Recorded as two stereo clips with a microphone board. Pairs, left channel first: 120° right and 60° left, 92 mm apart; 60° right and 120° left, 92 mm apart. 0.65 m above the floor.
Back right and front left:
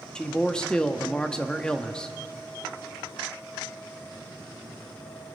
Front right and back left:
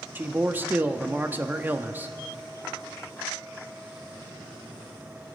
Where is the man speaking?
170° left, 0.8 m.